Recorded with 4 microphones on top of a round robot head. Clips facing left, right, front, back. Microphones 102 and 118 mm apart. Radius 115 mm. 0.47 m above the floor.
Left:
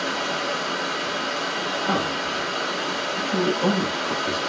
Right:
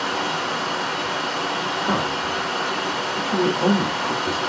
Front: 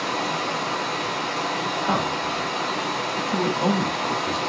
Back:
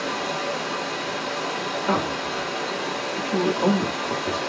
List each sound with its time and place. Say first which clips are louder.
0.0 s running water: right 2 dB, front 1 dB; 45° right, 1.7 m
1.8 s a man speaking: right 1 dB, back 1 dB; 90° right, 1.0 m